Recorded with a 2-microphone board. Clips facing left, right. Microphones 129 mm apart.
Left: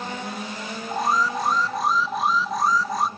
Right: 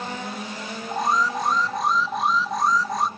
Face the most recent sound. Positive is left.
turn(degrees=0)  # may be behind; listen again after turning